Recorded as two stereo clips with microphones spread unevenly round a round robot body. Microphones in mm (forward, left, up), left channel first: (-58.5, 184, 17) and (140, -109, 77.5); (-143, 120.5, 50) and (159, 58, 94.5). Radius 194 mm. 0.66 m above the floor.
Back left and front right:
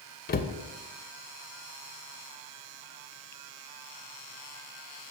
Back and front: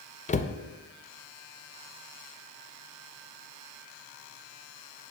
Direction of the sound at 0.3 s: 135° left.